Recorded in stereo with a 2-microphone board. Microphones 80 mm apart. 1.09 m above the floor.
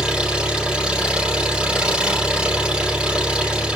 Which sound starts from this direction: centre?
An engine running, at 0.0 s.